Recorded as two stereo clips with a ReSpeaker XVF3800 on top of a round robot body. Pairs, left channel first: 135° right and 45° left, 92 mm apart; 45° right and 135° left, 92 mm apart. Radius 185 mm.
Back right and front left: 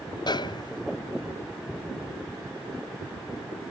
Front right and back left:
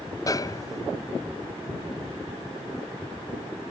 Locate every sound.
0.3 s a snare drum: 95° right